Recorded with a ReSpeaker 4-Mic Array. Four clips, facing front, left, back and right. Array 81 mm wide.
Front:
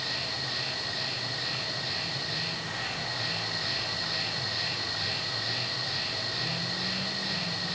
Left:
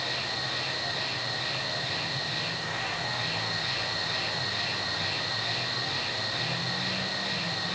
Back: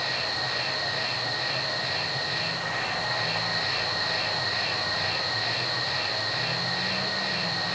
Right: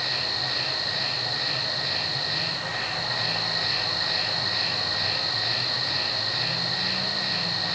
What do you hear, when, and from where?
0.0 s an insect: 160° right, 4.5 m